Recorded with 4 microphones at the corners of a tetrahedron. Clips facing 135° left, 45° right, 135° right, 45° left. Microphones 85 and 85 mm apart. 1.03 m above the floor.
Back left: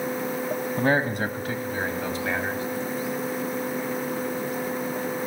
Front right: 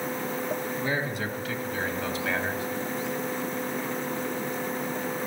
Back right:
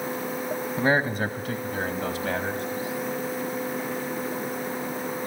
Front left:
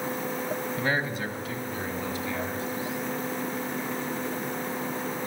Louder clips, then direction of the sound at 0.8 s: Back left 6 dB, back right 8 dB; 165° left.